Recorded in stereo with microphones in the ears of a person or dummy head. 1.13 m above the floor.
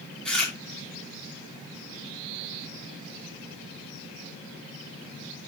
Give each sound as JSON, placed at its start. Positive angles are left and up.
{"t": 0.2, "sound": "chewing", "side_deg": 5, "distance_m": 3.5}